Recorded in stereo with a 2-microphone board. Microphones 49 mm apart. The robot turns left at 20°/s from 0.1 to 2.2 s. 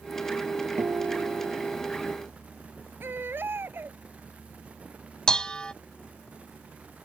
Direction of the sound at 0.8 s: 75° right (ahead or behind).